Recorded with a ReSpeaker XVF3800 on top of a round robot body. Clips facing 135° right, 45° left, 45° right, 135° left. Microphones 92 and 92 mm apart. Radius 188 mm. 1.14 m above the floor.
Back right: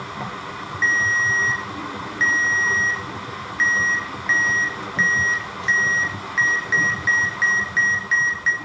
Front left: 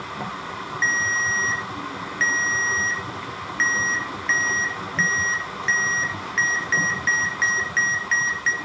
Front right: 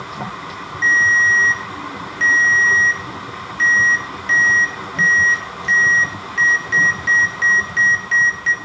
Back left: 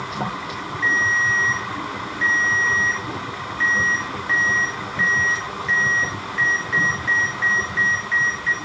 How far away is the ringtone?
About 1.4 m.